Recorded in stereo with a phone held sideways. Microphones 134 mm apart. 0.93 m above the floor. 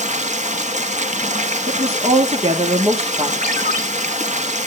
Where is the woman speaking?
50° right (ahead or behind), 1.4 m.